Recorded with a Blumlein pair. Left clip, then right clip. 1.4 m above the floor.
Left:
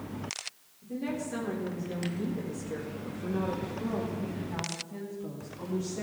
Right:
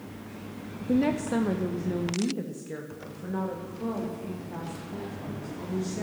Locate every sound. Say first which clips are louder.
0.8 s a woman speaking: right 9 dB; 45° right, 0.7 m; by 6.0 s straight ahead, 3 m